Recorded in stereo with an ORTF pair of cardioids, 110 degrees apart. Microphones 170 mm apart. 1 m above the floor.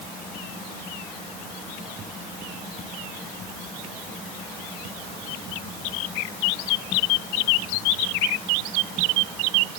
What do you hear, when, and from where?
Only background noise.